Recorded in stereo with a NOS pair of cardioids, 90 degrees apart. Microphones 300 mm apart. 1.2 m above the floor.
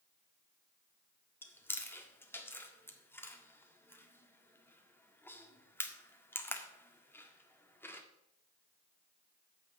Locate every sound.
1.4 s chewing: 5° left, 1.7 m